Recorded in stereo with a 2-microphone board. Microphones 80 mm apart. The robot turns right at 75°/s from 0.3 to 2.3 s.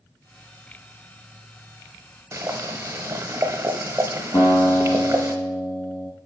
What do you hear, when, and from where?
2.3 s boiling: 35° right (ahead or behind), 0.6 m
4.3 s a guitar: 25° left (ahead or behind), 2.5 m